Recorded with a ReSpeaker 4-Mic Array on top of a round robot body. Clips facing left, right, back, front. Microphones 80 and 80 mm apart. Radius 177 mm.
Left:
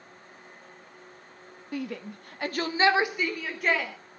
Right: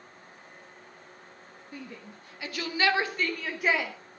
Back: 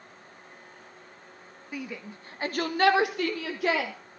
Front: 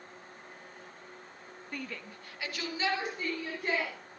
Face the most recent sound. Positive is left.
turn(degrees=-170)